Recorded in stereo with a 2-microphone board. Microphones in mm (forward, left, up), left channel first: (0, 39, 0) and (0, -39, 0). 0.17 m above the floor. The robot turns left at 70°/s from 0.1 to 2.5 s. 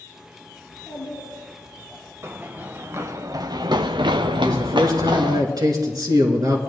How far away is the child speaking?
About 5 m.